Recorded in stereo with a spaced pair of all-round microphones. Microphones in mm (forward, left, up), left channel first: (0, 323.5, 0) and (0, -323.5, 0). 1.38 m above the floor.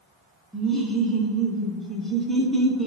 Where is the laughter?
Centre (ahead or behind), 0.6 m.